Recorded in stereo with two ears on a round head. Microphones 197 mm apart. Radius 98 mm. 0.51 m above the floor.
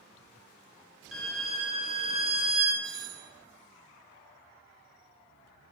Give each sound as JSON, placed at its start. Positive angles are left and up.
{"t": 1.1, "sound": "a violin", "side_deg": 0, "distance_m": 3.0}
{"t": 2.8, "sound": "a doorbell", "side_deg": -25, "distance_m": 3.0}